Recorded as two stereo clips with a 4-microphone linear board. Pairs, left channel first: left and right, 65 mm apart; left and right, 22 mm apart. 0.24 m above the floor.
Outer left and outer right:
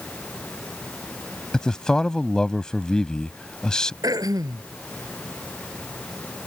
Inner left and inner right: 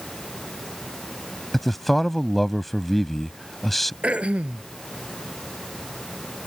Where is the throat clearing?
75° right (ahead or behind).